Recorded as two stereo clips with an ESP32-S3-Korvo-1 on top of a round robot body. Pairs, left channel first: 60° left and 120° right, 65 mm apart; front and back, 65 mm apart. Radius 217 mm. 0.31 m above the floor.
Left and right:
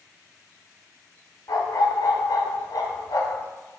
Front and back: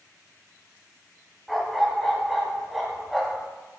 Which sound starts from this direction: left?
A dog barking, at 1.5 s.